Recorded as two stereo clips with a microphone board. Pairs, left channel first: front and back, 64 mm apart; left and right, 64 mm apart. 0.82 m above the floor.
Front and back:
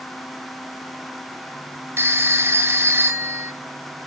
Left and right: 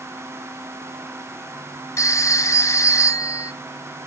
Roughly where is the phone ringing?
Behind left.